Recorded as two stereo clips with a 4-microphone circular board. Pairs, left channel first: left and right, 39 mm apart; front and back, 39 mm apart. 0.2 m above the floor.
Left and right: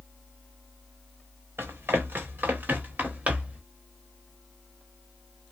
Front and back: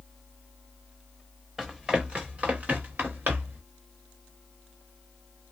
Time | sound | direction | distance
1.6 | running footsteps | 100° right | 1.5 m